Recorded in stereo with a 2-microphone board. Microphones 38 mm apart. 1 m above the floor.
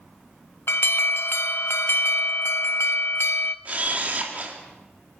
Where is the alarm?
75° left (ahead or behind), 0.7 m.